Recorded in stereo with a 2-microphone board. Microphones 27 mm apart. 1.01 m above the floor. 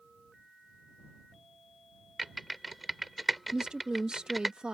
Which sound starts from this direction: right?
A woman speaking, at 3.5 s.